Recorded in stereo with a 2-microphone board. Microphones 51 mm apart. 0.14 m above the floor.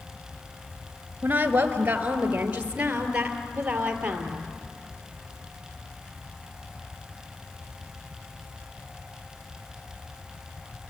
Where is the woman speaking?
35° right (ahead or behind), 2 m; by 4.4 s 15° right (ahead or behind), 3.5 m.